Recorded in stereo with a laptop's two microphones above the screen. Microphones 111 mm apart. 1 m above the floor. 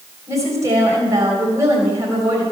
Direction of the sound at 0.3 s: 30° right (ahead or behind).